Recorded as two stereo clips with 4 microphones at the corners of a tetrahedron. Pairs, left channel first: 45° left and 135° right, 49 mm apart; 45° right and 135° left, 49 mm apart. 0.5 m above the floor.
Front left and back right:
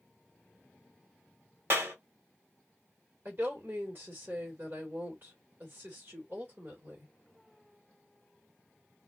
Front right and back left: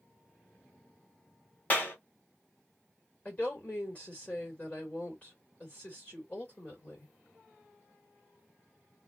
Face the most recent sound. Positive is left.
turn(degrees=-100)